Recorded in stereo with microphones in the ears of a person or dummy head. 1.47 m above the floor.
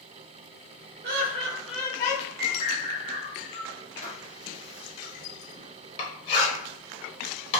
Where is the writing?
30° left (ahead or behind), 1.0 m.